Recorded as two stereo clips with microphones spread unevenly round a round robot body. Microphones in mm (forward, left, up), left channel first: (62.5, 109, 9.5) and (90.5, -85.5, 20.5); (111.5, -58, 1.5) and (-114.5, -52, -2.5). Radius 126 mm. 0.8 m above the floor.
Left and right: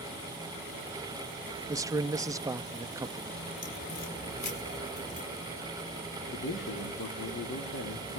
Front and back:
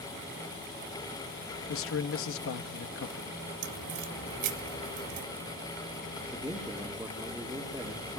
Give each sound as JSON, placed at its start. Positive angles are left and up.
{"t": 1.7, "sound": "a man speaking", "azimuth_deg": -10, "distance_m": 0.7}
{"t": 3.6, "sound": "a crack", "azimuth_deg": 155, "distance_m": 2.0}
{"t": 6.3, "sound": "a man speaking", "azimuth_deg": 95, "distance_m": 2.0}